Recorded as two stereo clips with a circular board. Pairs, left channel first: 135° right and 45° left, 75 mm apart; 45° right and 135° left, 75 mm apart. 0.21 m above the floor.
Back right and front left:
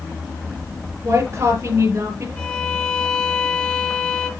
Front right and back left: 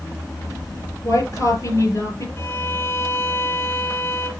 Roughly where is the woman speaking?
Ahead.